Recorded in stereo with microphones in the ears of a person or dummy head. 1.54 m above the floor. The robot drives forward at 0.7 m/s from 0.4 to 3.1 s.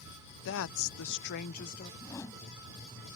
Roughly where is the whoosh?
Centre.